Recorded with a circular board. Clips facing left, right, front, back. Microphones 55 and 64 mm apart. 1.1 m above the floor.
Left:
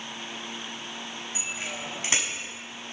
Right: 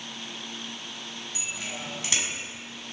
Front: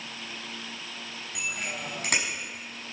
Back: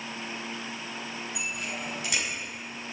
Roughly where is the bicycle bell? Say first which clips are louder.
Left 1 dB, front 3 dB; ahead left.